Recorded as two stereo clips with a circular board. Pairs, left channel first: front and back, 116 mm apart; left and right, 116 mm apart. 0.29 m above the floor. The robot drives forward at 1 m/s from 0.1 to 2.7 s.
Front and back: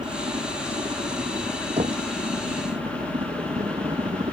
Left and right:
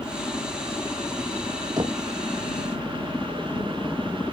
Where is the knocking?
145° right.